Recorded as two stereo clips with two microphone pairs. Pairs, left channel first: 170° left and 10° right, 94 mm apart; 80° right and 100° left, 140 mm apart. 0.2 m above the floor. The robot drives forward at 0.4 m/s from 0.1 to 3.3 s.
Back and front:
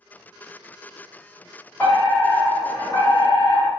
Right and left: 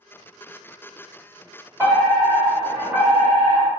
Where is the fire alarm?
140° left, 2.0 m; by 3.7 s 160° left, 2 m.